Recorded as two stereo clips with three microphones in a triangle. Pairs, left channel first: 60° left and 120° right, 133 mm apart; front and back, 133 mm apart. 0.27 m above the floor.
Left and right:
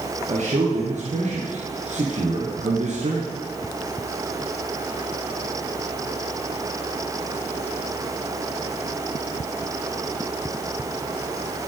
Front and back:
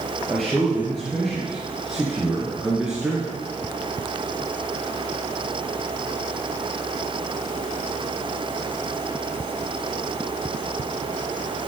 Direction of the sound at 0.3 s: 85° right.